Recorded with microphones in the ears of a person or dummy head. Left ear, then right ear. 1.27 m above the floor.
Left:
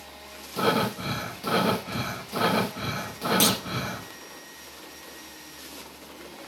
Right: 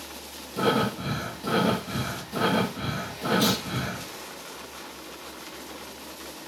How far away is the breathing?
About 1.1 m.